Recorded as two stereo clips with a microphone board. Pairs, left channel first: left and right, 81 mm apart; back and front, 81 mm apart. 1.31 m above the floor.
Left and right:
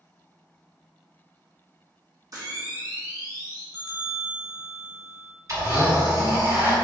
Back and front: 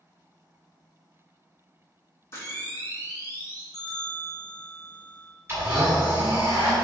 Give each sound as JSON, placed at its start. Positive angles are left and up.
{"t": 2.3, "sound": "a camera shutter", "azimuth_deg": -130, "distance_m": 0.8}
{"t": 3.7, "sound": "a bell", "azimuth_deg": -130, "distance_m": 1.7}
{"t": 5.5, "sound": "a blender", "azimuth_deg": -55, "distance_m": 1.5}